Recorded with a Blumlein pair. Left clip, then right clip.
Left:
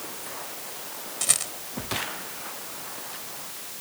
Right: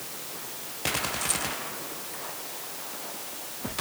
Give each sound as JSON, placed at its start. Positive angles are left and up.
{"t": 1.2, "sound": "a rattle", "azimuth_deg": 70}